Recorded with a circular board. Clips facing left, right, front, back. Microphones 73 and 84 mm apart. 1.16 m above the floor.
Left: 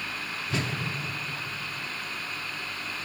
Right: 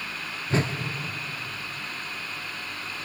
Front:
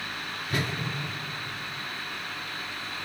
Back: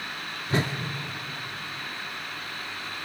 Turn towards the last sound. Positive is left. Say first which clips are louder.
# right 6 dB, back 4 dB
turn(degrees=-130)